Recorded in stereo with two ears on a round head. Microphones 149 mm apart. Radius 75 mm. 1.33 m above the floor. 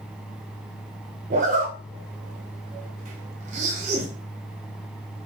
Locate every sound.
1.3 s a zipper: 45° right (ahead or behind), 1.2 m